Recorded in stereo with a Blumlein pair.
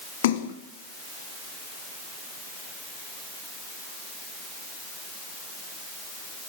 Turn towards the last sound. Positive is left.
turn(degrees=55)